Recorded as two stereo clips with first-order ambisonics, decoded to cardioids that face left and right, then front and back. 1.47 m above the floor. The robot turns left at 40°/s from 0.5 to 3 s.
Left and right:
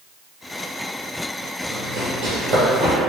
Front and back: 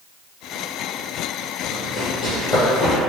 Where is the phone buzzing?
I don't hear a phone buzzing.